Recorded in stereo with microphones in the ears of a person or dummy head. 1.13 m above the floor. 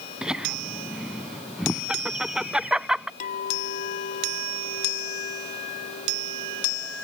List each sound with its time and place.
0.2 s laughter: centre (ahead or behind)
3.2 s a clink: 45° left (ahead or behind)